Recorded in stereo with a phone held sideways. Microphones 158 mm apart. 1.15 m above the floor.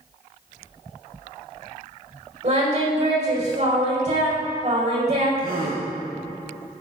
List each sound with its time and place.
2.4 s singing: 45° right (ahead or behind), 5 m
5.4 s a gasp: 75° right (ahead or behind), 5 m